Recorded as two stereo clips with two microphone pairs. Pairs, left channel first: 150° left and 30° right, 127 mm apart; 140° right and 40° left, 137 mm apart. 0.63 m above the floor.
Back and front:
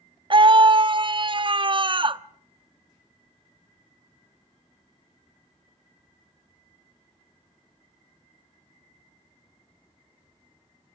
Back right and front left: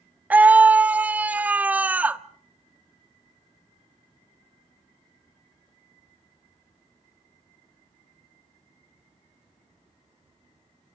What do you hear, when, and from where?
0.3 s a scream: 35° right, 0.7 m